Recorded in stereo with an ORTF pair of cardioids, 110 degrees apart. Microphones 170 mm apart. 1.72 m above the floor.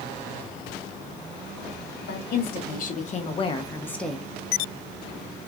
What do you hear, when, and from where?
2.0 s a woman speaking: 65° left, 1.4 m; by 4.2 s 5° right, 0.8 m